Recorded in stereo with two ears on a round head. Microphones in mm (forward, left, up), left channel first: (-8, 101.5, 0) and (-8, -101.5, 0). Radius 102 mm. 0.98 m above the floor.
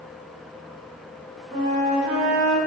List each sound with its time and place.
1.5 s a flute: 30° right (ahead or behind), 1.1 m